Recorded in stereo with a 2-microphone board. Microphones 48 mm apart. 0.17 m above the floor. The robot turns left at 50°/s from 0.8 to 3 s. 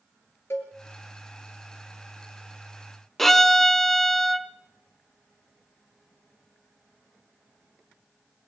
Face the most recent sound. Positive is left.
turn(degrees=5)  # may be behind; listen again after turning